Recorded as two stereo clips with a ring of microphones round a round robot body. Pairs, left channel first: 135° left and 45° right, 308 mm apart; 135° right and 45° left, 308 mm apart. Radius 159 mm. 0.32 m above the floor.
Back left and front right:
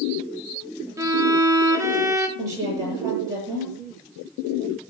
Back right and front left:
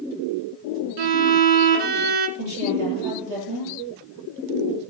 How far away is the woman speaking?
About 7.5 m.